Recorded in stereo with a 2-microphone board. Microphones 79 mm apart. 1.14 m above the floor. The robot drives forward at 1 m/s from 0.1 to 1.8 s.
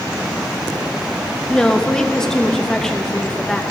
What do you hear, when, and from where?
1.5 s a woman speaking: 10° left (ahead or behind), 0.6 m